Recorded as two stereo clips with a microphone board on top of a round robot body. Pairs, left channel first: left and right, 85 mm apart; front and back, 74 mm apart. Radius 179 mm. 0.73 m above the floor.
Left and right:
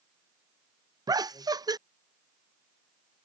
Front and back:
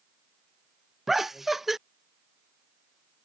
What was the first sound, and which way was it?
Laughter, 95° right.